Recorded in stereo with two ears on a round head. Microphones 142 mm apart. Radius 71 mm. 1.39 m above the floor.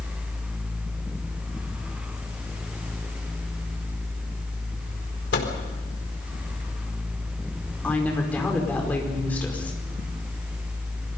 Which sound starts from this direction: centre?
A woman speaking, at 7.8 s.